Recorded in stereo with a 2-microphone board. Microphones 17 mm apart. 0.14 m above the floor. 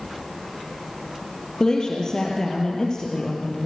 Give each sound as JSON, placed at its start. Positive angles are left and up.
{"t": 1.6, "sound": "a woman speaking", "side_deg": 40, "distance_m": 3.0}